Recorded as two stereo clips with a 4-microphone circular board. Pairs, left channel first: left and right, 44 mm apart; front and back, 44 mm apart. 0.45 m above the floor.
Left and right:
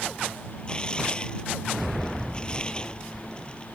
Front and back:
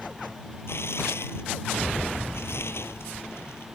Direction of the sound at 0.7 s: 20° left.